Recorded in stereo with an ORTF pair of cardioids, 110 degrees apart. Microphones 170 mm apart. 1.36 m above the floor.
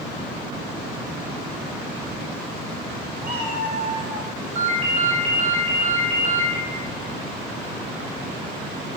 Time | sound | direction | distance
3.2 | a cat meowing | 10° right | 1.9 m
4.5 | a ringtone | 35° right | 1.2 m